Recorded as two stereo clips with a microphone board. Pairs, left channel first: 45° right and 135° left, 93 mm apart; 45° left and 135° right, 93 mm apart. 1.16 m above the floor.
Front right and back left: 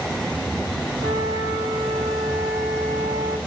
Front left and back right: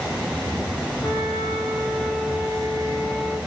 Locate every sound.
1.0 s a flute: 135° left, 5 m